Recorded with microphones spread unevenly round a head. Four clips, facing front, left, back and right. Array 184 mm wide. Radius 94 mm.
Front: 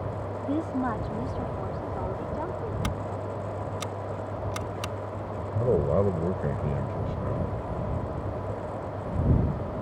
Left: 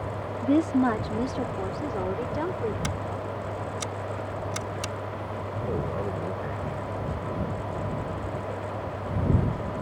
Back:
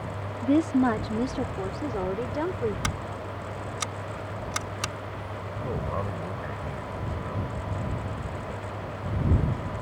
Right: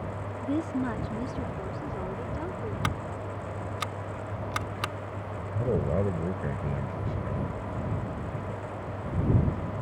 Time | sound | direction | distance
0.4 | a woman speaking | 105° left | ?
2.8 | scissors | 105° right | ?
5.4 | a man speaking | 30° right | ?